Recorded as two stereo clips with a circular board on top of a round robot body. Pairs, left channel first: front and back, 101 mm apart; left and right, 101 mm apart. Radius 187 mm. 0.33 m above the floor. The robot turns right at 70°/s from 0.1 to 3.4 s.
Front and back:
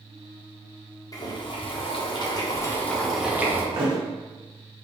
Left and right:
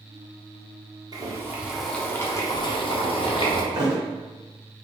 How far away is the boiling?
About 1.1 m.